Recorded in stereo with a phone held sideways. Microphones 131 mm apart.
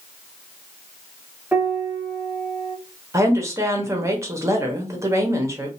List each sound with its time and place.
1.5 s a piano: 10° right (ahead or behind), 1.0 m
3.1 s a woman speaking: 20° right (ahead or behind), 1.1 m